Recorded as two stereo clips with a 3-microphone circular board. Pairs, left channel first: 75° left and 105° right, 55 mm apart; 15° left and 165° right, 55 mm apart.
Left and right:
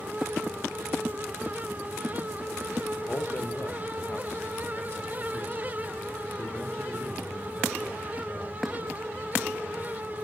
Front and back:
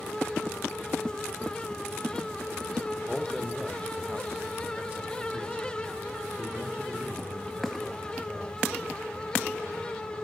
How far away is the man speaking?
About 0.9 m.